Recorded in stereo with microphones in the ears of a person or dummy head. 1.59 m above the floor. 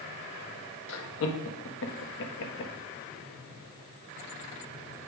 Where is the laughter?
65° left (ahead or behind), 1.6 m.